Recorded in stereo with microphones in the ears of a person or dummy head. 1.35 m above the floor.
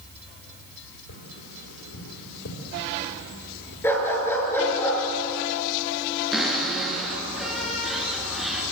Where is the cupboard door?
Centre (ahead or behind), 6.5 m.